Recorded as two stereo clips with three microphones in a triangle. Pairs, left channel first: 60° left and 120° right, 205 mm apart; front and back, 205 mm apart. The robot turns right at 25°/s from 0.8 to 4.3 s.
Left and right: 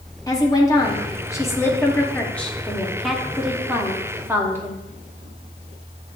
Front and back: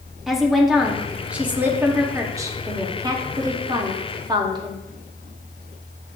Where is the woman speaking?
95° left, 0.7 m; by 4.8 s straight behind, 0.7 m.